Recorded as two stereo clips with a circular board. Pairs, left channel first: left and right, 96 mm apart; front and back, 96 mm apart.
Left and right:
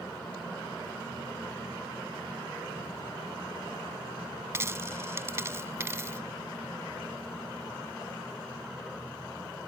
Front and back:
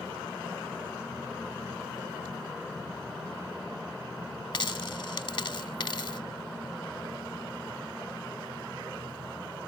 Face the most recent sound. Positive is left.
turn(degrees=-30)